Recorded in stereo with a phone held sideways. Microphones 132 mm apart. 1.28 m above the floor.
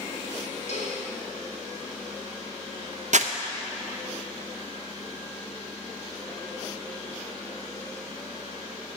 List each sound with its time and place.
0.7 s a cowbell: 65° left (ahead or behind), 2.5 m
3.1 s crumpling: 65° right (ahead or behind), 0.6 m